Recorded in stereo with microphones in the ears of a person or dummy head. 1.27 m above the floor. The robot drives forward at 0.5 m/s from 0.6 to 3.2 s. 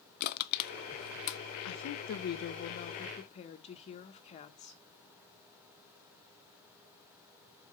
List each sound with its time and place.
0.2 s crushing: 50° left (ahead or behind), 0.6 m; by 1.4 s 60° left (ahead or behind), 0.5 m
1.6 s a woman speaking: 75° left (ahead or behind), 0.7 m; by 4.8 s 35° left (ahead or behind), 1.2 m